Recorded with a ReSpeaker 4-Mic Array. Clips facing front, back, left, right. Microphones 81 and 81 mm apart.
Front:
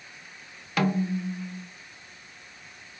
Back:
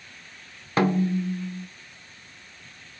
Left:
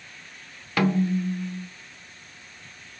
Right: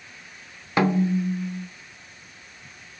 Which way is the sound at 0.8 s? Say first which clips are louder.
Back 4 dB, right 2 dB; 145° right.